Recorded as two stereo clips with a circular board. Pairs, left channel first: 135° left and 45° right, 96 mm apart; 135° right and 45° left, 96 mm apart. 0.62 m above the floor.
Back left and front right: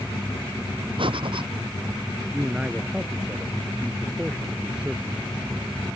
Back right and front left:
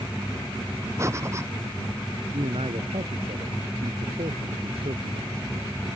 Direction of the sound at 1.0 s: 15° right.